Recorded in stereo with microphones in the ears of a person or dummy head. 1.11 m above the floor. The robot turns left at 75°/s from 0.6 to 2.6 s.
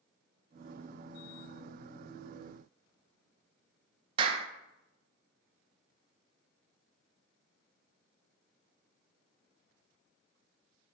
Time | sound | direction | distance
4.2 | a clap | 30° right (ahead or behind) | 0.6 m